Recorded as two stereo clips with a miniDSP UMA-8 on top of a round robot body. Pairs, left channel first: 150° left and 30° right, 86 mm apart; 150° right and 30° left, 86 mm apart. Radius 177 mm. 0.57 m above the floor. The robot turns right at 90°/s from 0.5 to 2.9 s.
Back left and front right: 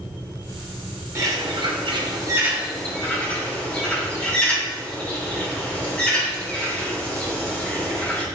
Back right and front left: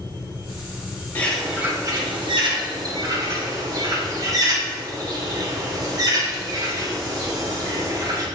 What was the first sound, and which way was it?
A bird, 85° right.